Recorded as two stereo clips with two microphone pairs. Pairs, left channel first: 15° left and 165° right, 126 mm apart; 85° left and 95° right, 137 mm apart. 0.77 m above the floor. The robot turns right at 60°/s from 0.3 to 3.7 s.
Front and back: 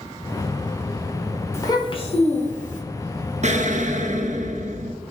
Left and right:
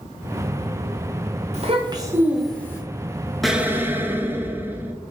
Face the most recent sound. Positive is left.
turn(degrees=-170)